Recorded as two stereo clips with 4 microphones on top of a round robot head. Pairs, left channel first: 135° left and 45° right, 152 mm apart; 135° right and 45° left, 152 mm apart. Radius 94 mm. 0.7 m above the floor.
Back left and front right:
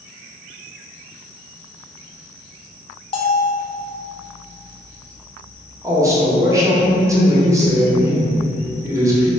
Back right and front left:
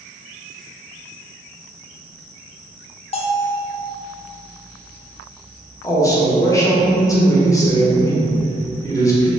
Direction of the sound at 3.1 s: 175° right.